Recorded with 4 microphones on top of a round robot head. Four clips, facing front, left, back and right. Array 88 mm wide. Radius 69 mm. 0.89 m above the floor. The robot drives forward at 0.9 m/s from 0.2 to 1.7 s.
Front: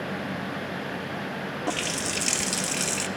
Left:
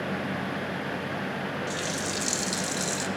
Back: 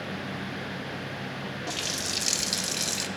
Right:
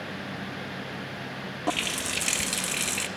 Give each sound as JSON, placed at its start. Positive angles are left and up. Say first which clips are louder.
{"t": 1.7, "sound": "a running tap", "louder": "right 1 dB, front 5 dB", "azimuth_deg": -55, "distance_m": 0.6}